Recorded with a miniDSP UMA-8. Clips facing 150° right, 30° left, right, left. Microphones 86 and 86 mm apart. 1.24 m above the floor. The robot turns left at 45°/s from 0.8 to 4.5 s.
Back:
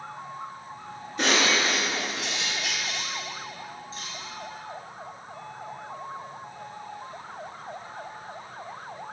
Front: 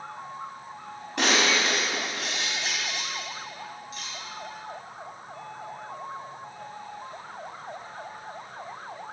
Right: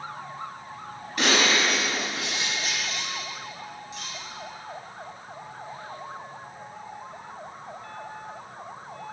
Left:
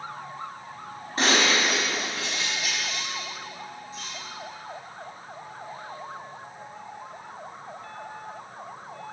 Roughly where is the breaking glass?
Ahead left.